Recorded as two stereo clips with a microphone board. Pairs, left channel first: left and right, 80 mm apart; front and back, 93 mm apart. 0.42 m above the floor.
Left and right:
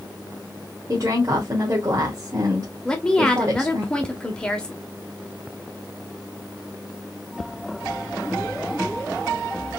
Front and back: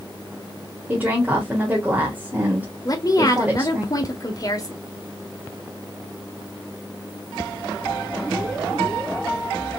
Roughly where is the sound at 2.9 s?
Ahead.